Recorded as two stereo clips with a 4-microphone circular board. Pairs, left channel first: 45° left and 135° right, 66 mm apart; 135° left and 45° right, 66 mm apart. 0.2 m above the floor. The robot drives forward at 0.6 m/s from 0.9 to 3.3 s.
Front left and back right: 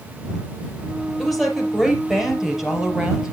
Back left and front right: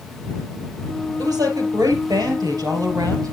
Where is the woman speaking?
45° right, 4.5 m; by 3.3 s 60° right, 4 m.